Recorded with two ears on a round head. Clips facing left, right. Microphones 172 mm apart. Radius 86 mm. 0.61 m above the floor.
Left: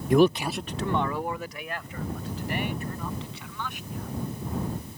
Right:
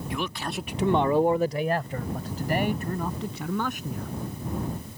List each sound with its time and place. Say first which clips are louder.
0.1 s a man speaking: left 13 dB; 40° left (ahead or behind); by 4.1 s 40° right (ahead or behind)